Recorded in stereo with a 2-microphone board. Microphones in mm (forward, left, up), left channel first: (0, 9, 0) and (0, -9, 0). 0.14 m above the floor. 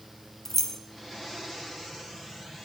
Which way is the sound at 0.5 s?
20° left (ahead or behind).